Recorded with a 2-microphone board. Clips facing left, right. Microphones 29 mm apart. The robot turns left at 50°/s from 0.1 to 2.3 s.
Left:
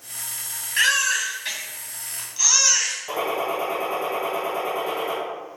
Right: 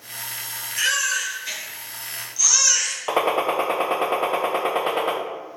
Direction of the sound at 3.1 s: 55° right (ahead or behind).